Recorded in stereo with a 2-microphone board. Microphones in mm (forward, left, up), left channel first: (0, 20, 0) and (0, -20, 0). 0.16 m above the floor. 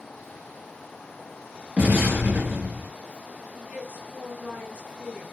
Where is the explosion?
30° right (ahead or behind), 2.5 m.